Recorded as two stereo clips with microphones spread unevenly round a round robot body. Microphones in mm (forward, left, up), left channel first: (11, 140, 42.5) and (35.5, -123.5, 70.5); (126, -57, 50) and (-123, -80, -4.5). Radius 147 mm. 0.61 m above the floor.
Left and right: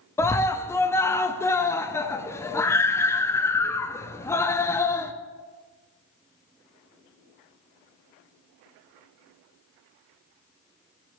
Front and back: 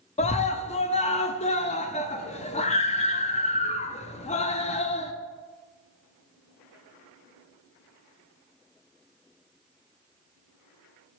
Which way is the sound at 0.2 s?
55° left.